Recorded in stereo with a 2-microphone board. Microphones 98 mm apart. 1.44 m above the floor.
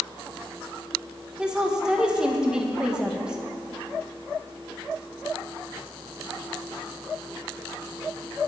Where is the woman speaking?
10° right (ahead or behind), 1.8 m.